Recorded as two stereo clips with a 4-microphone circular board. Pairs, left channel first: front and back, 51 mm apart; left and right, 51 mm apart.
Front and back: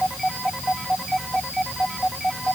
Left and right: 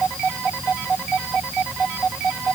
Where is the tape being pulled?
I don't hear tape being pulled.